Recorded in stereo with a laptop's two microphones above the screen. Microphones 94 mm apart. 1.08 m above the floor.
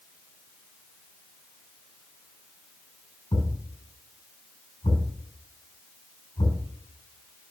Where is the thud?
80° left, 5.5 m.